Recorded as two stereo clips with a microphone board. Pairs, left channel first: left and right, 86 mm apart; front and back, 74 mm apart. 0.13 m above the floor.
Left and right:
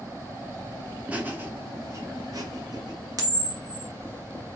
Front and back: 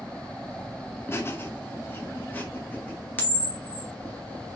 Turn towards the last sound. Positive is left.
turn(degrees=-65)